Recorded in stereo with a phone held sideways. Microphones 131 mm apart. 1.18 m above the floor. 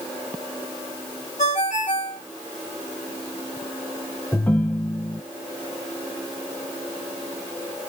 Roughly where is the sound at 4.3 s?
Centre.